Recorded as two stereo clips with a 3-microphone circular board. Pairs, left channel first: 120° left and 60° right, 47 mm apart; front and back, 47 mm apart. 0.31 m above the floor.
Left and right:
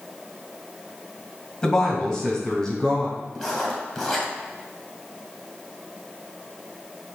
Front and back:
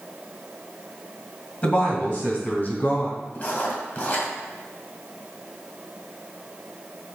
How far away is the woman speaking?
About 2 m.